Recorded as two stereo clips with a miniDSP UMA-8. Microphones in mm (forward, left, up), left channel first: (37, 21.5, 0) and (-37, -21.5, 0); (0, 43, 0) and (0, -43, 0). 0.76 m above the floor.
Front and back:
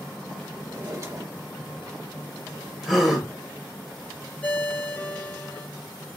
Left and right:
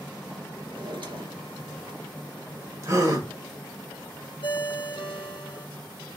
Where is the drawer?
105° right, 1.3 m.